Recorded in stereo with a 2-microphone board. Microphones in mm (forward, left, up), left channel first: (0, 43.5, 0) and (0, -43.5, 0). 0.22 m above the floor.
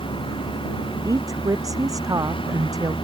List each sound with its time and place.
0.0 s a vehicle: 80° left
1.1 s a woman speaking: 40° right (ahead or behind)